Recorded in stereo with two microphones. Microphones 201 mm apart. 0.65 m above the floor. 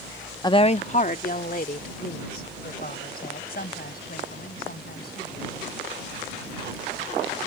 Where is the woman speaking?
20° left (ahead or behind); by 5.6 s 50° left (ahead or behind).